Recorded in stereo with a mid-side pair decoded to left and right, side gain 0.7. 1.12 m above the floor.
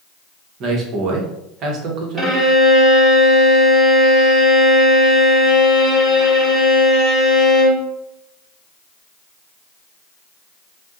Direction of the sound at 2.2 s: 30° right.